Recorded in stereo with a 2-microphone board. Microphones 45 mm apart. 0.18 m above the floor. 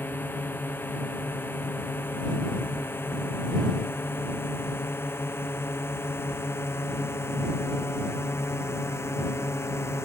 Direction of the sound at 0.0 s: 50° left (ahead or behind).